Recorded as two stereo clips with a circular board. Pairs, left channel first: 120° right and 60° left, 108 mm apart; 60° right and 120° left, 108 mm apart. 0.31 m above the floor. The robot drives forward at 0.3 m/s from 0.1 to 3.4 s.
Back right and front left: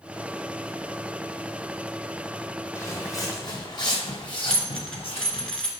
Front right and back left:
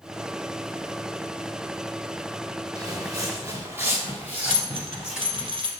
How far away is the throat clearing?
No throat clearing in this recording.